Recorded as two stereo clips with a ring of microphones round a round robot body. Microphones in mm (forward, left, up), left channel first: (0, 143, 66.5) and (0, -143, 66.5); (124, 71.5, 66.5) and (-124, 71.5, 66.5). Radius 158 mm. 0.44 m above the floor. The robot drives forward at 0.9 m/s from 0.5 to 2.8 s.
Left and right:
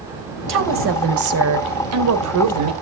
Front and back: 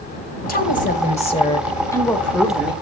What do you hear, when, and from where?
0.5 s a woman speaking: 50° right, 3 m; by 2.7 s 95° right, 2.5 m